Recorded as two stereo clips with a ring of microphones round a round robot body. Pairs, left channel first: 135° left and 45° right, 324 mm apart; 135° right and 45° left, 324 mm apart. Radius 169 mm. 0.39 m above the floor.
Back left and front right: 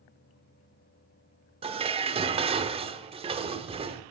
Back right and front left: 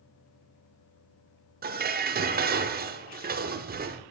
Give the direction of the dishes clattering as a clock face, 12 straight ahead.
12 o'clock.